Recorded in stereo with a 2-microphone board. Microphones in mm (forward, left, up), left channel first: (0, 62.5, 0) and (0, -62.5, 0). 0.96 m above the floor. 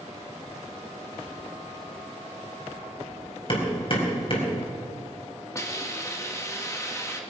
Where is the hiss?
25° left (ahead or behind), 1.7 m.